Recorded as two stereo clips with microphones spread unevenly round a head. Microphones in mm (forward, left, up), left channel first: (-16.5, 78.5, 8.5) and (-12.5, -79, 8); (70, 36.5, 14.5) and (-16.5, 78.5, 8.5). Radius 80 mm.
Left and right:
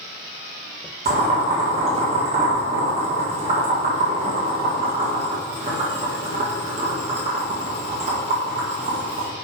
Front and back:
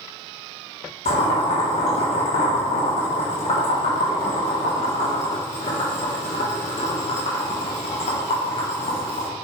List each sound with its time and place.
1.1 s boiling: 35° right, 2 m